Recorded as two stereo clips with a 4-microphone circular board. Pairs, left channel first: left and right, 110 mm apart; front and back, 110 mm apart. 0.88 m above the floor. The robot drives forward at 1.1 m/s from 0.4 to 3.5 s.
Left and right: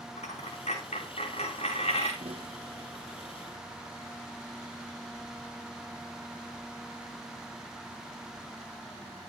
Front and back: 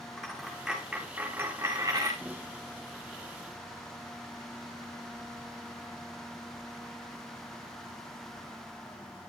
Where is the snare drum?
105° right, 1.6 m; by 2.5 s 115° right, 1.7 m.